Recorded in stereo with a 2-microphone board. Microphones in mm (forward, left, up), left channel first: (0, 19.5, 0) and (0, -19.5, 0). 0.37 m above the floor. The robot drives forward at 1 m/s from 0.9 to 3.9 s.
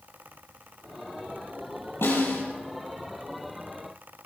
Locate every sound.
2.0 s a snare drum: 80° left, 6.5 m